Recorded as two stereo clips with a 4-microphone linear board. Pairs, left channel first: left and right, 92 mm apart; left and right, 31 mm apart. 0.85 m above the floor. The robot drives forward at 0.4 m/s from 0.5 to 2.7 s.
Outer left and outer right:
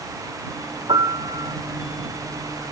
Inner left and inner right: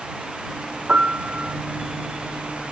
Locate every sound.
0.9 s a piano: 75° right (ahead or behind), 1.3 m; by 1.6 s 70° right (ahead or behind), 1.4 m